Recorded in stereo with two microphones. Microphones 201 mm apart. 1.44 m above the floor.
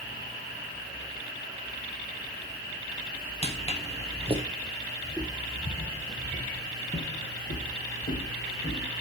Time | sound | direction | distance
3.4 | footsteps | 30° left (ahead or behind) | 2.5 m
5.0 | footsteps | 15° left (ahead or behind) | 1.6 m